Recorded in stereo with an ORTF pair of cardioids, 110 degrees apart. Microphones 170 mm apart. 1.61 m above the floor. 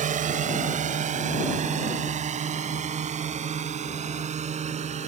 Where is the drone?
50° right; by 5.1 s 40° right.